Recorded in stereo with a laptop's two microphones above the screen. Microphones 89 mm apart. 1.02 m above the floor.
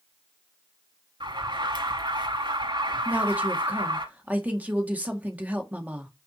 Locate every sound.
1.2 s an alarm: 60° right (ahead or behind), 1.9 m
3.0 s a woman speaking: 15° right (ahead or behind), 1.6 m